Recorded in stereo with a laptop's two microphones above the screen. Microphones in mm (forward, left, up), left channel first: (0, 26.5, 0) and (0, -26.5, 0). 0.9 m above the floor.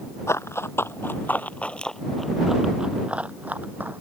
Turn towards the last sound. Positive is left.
turn(degrees=-35)  # may be behind; listen again after turning